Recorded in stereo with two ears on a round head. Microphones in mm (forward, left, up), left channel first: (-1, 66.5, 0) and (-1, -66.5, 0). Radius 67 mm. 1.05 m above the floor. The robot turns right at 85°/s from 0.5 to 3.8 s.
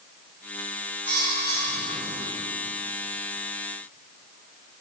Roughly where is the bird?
Behind.